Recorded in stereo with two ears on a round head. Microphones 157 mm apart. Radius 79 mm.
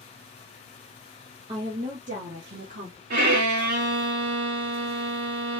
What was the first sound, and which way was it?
A woman speaking, 30° right (ahead or behind).